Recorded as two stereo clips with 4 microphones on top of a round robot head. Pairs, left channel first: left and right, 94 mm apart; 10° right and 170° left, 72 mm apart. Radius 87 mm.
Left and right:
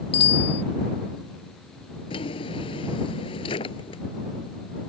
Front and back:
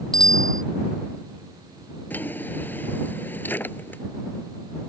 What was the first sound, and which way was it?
A bicycle bell, 75° left.